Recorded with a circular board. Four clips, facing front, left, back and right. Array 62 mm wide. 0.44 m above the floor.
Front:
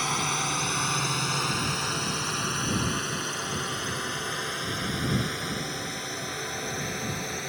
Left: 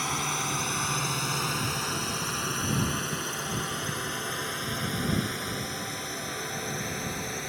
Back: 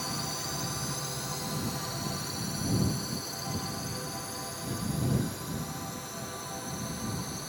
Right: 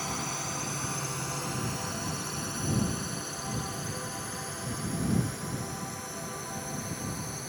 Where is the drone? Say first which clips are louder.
Left 5 dB, front 8 dB; 25° left; by 7.5 s 35° left.